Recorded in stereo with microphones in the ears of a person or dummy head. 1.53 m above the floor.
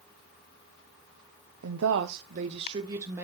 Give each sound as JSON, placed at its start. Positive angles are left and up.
{"t": 1.6, "sound": "a woman speaking", "side_deg": -85, "distance_m": 0.8}